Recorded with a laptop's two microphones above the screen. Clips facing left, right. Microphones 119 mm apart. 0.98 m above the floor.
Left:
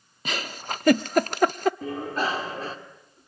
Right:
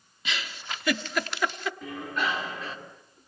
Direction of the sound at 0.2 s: 40° left (ahead or behind).